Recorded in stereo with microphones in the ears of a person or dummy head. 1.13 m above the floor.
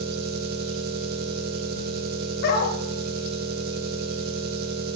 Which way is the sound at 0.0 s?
60° right (ahead or behind).